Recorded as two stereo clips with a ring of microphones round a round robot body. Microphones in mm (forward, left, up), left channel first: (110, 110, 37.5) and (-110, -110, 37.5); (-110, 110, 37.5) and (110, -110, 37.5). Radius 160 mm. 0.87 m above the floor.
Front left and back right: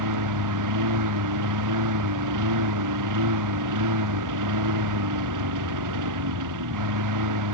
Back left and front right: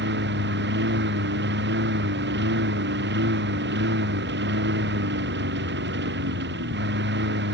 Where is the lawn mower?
105° right.